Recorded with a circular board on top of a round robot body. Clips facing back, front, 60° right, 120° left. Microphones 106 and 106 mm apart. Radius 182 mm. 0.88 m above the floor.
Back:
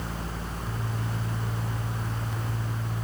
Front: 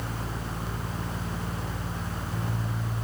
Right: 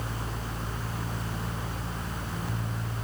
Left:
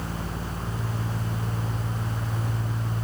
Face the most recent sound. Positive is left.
No sound to turn to.